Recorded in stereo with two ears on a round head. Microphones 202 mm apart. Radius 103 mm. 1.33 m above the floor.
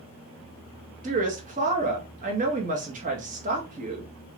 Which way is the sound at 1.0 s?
35° right (ahead or behind).